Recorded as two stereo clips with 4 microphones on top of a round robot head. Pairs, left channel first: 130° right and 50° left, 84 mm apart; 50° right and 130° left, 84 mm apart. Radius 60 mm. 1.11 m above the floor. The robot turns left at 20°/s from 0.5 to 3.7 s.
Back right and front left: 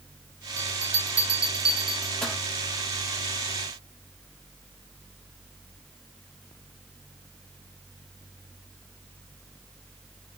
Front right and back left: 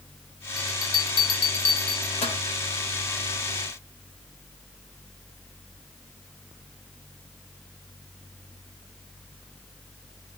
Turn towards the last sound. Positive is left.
turn(degrees=-75)